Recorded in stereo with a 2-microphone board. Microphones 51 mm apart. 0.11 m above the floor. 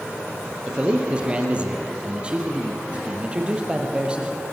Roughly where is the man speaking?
Right.